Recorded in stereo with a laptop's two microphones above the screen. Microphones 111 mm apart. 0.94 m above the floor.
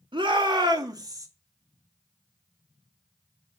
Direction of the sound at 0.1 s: 45° right (ahead or behind).